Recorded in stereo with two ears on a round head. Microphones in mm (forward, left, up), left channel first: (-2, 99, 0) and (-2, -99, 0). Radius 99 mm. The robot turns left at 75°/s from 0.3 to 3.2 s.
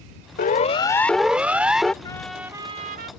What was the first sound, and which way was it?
A siren, 40° left (ahead or behind).